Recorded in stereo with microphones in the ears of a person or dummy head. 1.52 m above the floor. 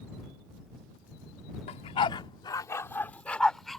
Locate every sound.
1.7 s a dog barking: 40° left (ahead or behind); by 3.8 s centre (ahead or behind)